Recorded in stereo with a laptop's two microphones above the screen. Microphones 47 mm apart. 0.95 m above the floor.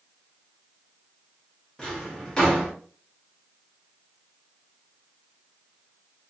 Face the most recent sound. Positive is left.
turn(degrees=20)  # may be behind; listen again after turning